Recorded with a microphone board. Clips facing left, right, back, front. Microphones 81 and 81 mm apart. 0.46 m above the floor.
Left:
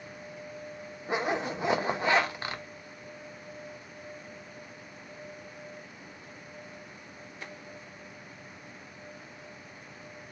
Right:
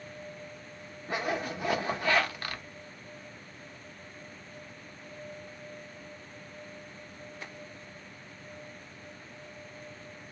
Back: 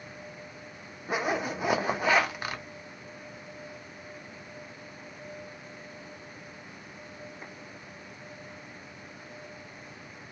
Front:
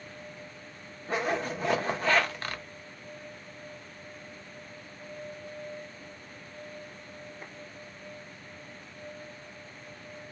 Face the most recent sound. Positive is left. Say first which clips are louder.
# left 2 dB, even
turn(degrees=120)